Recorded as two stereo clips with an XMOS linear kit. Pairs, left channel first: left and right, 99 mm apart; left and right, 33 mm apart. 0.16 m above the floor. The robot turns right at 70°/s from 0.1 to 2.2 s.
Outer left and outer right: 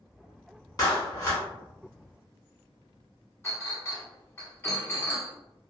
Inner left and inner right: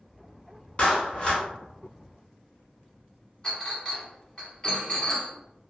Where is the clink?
25° left (ahead or behind), 0.9 m.